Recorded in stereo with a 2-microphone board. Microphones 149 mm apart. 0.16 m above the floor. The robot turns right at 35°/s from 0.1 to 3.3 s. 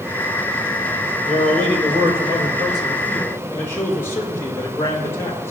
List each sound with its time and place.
1.2 s a man speaking: 55° right, 5.5 m; by 5.5 s 15° left, 5.5 m